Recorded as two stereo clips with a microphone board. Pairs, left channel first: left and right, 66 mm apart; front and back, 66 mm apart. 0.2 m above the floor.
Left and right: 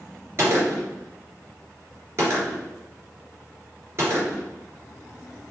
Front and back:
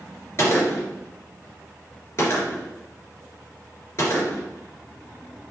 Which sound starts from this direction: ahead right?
A gunshot, at 0.4 s.